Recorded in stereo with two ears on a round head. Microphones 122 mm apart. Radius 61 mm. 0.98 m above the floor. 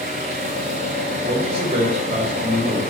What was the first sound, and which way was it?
An engine running, 55° right (ahead or behind).